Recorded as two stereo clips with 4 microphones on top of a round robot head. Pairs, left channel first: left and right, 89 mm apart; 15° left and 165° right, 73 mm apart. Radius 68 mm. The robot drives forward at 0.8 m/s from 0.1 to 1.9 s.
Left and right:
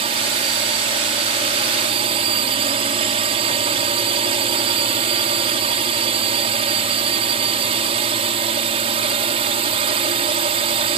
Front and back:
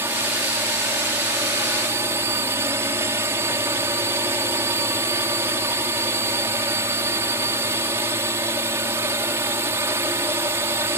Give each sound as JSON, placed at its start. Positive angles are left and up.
{"t": 0.0, "sound": "a drone", "azimuth_deg": -100}